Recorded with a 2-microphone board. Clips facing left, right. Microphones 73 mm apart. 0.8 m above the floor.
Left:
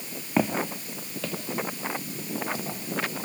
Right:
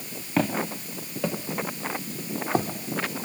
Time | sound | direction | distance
0.4 | footsteps | 10° left (ahead or behind) | 1.2 m